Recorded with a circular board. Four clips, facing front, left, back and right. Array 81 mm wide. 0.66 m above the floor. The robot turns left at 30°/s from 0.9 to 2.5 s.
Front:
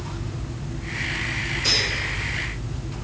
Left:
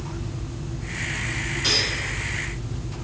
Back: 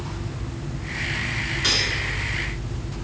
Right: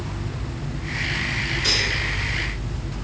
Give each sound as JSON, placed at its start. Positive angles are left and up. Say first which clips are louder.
{"t": 1.6, "sound": "cutlery clinking", "louder": "left 1 dB, back 1 dB", "azimuth_deg": 170, "distance_m": 4.5}